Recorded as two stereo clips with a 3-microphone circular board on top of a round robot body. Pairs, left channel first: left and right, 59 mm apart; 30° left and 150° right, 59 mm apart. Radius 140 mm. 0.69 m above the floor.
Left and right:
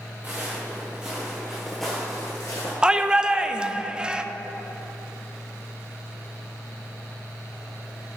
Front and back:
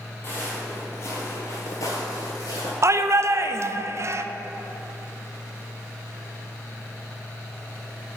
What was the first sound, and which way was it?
Footsteps, 25° right.